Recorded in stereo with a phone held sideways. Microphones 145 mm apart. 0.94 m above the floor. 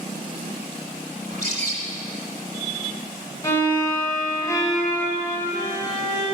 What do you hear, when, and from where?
1.2 s a bird: 60° right (ahead or behind), 1.7 m
3.4 s a violin: 25° left (ahead or behind), 1.9 m